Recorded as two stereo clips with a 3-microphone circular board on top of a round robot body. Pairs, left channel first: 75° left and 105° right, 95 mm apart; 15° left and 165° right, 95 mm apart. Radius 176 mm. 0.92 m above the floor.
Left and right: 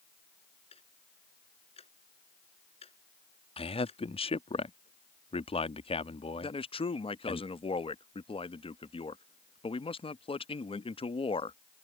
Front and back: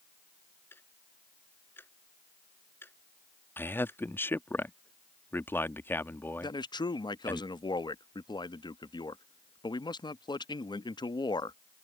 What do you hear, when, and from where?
0.7 s ticking: 85° left
3.6 s a man speaking: 85° left
6.4 s a man speaking: 55° left